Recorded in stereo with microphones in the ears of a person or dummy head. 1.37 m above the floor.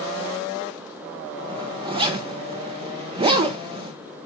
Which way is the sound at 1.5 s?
25° right (ahead or behind).